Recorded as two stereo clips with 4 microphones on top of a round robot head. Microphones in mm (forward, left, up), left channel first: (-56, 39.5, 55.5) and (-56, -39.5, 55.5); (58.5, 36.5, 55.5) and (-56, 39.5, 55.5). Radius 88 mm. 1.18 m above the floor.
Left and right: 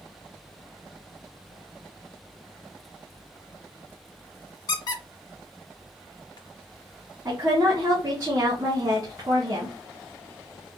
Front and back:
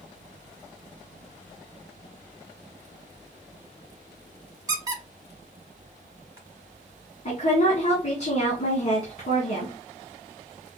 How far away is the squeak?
About 1.1 m.